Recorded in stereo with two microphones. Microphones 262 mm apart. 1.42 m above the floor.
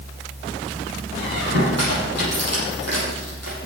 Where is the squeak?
75° right (ahead or behind), 7.5 m.